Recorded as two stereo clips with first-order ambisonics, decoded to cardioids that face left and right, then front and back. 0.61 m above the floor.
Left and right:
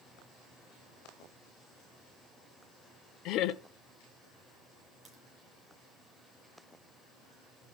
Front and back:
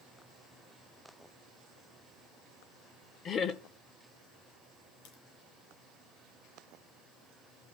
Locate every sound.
3.2 s laughter: 55° left, 1.4 m
5.0 s a crack: 15° right, 8 m